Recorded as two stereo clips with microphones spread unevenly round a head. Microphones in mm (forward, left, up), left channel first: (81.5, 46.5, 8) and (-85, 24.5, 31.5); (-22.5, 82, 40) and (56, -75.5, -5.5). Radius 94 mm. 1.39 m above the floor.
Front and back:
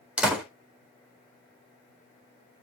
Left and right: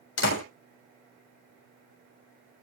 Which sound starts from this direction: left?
A door slam, at 0.2 s.